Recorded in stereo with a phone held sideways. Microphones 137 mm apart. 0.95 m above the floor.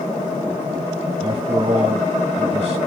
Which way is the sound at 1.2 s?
35° right (ahead or behind).